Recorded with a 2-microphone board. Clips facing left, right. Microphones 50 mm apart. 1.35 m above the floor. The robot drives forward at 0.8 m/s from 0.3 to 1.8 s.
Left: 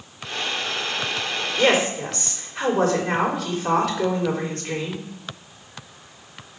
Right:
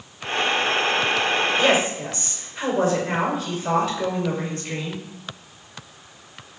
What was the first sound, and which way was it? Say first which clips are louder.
A woman speaking: left 5 dB; 75° left (ahead or behind).